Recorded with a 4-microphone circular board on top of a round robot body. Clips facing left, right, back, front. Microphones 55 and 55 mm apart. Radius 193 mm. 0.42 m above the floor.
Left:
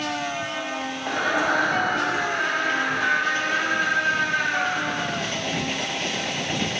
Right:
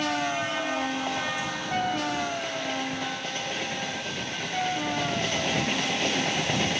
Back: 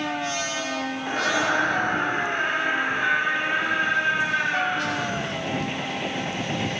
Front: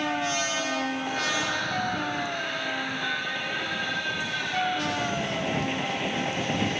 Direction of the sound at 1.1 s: 125° left.